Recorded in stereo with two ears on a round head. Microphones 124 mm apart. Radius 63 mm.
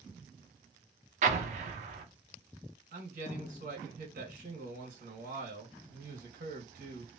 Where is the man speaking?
60° right (ahead or behind), 1.5 m.